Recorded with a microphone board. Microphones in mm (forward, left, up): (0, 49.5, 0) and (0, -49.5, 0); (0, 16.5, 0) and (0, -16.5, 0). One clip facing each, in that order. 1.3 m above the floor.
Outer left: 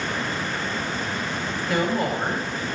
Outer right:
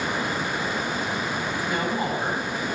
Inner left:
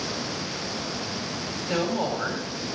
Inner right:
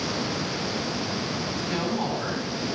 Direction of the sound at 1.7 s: 70° left (ahead or behind).